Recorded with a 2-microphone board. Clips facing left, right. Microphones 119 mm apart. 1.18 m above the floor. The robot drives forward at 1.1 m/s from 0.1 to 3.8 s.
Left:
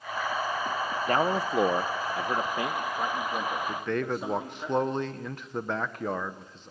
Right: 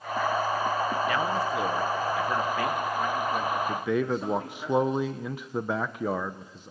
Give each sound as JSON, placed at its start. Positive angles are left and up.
{"t": 1.1, "sound": "a man speaking", "side_deg": 40, "distance_m": 0.8}
{"t": 3.7, "sound": "a man speaking", "side_deg": -5, "distance_m": 0.9}